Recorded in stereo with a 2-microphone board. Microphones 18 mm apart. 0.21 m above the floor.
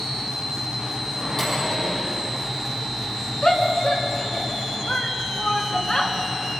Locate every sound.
1.2 s a microwave: 20° left (ahead or behind), 7 m
3.4 s a shout: 45° left (ahead or behind), 2.5 m